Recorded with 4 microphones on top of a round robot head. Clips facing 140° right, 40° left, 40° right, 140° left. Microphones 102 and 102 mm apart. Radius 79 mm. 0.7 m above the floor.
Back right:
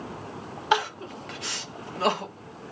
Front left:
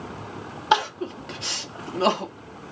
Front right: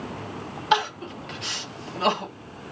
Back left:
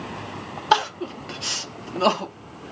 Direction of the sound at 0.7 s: 100° left.